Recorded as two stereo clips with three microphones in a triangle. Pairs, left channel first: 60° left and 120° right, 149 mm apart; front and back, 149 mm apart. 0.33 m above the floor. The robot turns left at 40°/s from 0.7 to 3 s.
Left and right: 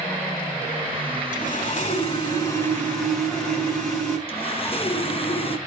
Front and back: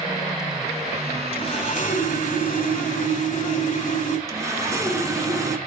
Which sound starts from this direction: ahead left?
Sawing, at 1.3 s.